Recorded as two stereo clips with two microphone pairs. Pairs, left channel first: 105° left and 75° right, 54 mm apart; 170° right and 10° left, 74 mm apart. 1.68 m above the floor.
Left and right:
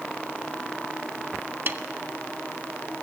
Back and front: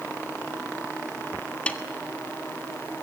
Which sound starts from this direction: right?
A snare drum, at 1.7 s.